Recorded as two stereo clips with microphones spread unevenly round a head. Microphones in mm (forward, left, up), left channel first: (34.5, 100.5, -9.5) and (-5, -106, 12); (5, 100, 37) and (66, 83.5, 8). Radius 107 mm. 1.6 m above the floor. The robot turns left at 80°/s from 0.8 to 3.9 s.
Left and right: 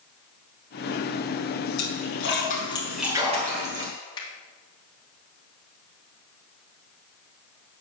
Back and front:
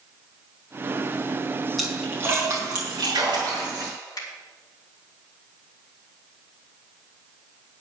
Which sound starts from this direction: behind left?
A finger snap, at 4.2 s.